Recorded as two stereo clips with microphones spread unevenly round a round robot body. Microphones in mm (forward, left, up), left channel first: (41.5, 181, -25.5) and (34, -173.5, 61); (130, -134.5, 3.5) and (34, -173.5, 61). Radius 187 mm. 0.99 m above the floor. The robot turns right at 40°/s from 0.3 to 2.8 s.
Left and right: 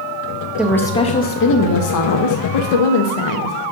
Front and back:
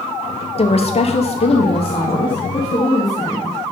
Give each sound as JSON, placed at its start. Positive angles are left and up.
{"t": 0.6, "sound": "a woman speaking", "azimuth_deg": 0, "distance_m": 0.8}